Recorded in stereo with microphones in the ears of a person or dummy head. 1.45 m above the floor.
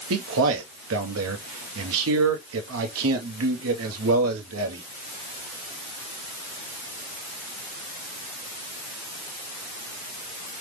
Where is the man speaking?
70° right (ahead or behind), 0.9 m.